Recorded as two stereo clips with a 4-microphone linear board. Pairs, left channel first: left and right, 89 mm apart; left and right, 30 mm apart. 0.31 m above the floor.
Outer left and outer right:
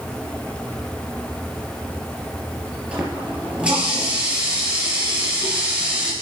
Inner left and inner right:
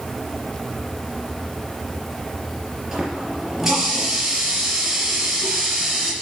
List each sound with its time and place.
2.9 s a running tap: 10° right (ahead or behind), 4 m